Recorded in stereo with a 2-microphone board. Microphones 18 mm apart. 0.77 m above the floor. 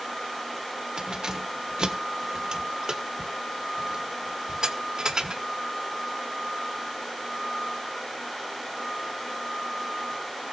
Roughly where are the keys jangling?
Right.